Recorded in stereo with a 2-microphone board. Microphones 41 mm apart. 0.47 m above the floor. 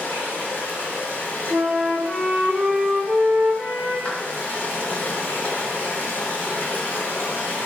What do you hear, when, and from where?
0.0 s running water: 70° left (ahead or behind), 1.2 m
1.5 s a flute: 25° right (ahead or behind), 0.7 m
4.0 s a clap: 30° left (ahead or behind), 0.7 m